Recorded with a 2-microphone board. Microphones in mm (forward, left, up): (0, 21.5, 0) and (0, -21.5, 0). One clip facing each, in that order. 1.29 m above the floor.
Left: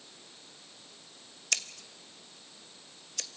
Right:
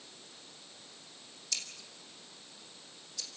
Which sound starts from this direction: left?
Scissors, at 1.5 s.